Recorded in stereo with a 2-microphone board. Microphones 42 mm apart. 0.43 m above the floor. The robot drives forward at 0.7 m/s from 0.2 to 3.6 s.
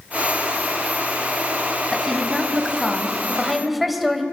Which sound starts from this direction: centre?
A woman speaking, at 1.9 s.